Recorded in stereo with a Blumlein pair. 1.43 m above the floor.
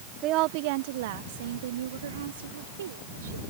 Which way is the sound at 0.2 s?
35° right.